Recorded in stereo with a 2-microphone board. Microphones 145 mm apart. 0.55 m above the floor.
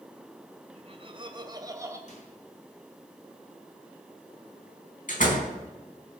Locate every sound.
0.8 s laughter: 45° right (ahead or behind), 3 m; by 2.0 s 20° right (ahead or behind), 3 m
2.1 s a microwave: 60° left (ahead or behind), 6 m
5.1 s a door slam: 65° left (ahead or behind), 4 m